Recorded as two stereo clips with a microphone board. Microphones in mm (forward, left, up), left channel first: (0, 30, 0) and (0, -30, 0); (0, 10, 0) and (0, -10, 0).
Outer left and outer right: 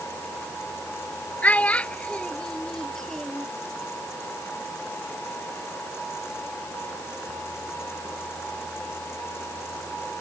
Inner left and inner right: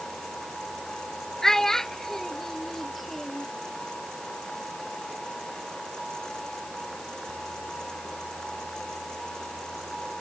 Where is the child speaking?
20° left (ahead or behind); by 3.5 s 5° left (ahead or behind).